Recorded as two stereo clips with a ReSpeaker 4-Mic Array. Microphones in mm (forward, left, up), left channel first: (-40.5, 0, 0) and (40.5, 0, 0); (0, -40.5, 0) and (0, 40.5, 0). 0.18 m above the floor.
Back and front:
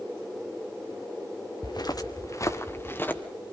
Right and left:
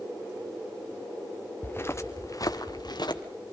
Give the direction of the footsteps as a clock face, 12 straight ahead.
5 o'clock.